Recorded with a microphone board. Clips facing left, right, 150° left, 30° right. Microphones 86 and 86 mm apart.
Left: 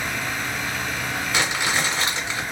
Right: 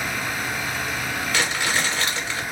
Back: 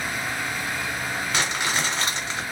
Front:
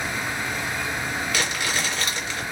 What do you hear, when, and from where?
1.3 s crumpling: 135° left, 1.7 m